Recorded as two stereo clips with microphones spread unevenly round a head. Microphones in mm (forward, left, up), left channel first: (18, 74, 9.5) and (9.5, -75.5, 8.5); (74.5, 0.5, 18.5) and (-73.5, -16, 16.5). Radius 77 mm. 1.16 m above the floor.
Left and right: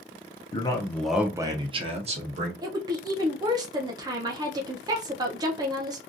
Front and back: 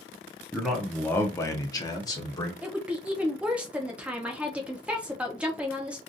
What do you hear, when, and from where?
0.5 s a man speaking: 105° left, 0.7 m; by 2.5 s 60° right, 1.3 m
2.6 s a woman speaking: 105° right, 0.6 m